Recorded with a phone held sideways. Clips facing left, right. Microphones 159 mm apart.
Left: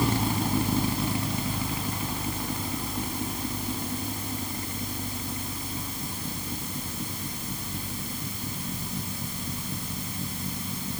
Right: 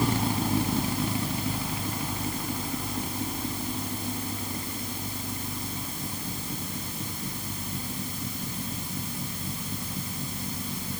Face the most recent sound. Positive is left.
No sound to turn to.